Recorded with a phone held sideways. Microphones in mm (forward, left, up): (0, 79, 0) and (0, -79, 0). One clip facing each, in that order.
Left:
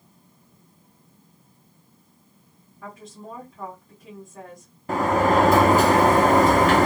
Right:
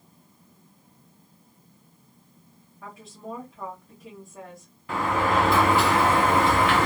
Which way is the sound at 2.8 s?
5° right (ahead or behind).